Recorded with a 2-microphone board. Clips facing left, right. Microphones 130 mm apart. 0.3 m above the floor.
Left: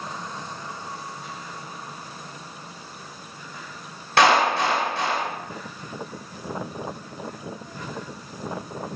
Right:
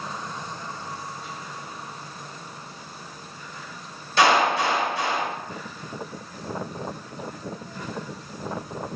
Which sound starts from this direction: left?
A clap, at 4.2 s.